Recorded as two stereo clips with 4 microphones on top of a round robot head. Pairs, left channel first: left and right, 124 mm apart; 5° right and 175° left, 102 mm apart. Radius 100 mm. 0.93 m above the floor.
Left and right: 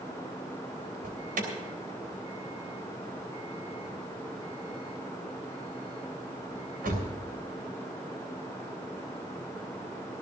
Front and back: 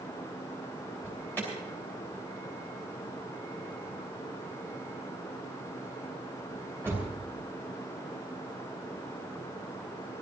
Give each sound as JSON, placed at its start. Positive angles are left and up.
{"t": 1.0, "sound": "an alarm", "azimuth_deg": -85, "distance_m": 3.0}